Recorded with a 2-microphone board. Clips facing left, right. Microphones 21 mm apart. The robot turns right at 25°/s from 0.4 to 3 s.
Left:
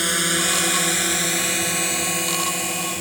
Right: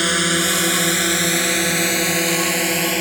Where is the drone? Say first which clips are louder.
Right 3 dB; 10° right (ahead or behind); by 3.0 s 35° right (ahead or behind).